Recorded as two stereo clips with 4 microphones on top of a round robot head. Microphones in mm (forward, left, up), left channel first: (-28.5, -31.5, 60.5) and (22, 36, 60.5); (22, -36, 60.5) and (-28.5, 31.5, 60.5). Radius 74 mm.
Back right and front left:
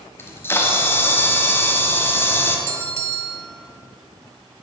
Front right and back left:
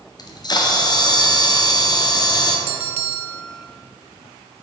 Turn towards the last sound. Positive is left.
turn(degrees=115)